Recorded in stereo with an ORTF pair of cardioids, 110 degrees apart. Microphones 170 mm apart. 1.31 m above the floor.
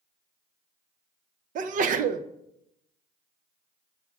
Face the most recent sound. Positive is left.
turn(degrees=-50)